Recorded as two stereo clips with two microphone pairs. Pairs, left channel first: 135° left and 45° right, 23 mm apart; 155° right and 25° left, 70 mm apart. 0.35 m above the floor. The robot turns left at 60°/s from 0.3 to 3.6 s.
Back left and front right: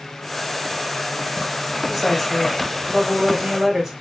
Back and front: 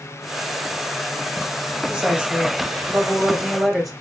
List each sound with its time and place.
1.9 s a woman speaking: 50° left, 1.4 m; by 3.9 s 55° right, 1.4 m